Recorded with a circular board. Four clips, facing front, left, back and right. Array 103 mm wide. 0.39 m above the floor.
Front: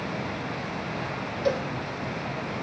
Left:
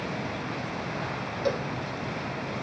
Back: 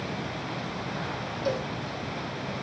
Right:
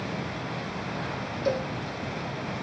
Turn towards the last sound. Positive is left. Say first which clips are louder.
# right 1 dB, front 3 dB
turn(degrees=60)